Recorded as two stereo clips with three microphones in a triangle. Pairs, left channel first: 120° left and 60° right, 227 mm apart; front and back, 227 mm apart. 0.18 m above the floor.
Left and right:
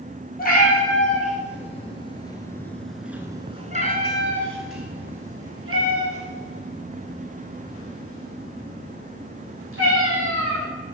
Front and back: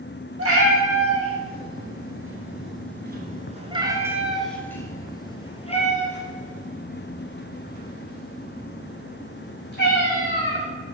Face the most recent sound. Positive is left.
turn(degrees=-40)